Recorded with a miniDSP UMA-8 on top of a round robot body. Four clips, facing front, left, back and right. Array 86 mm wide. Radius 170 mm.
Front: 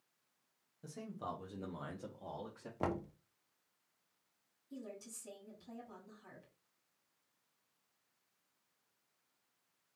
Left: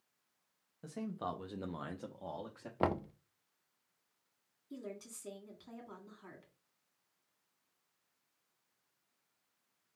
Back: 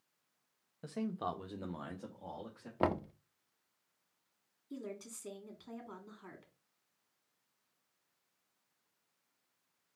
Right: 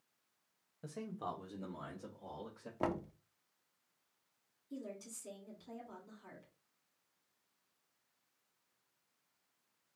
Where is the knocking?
135° left, 0.6 m.